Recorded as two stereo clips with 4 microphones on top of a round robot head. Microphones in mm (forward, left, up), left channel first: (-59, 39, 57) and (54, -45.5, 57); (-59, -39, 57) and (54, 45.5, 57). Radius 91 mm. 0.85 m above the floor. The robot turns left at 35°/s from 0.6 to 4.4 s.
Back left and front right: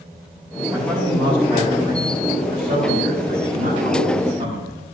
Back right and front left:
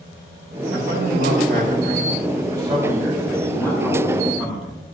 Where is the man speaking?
35° left, 8 m; by 4.8 s 95° right, 8 m.